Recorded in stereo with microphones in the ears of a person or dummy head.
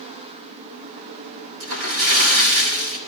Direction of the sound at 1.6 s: 70° right (ahead or behind).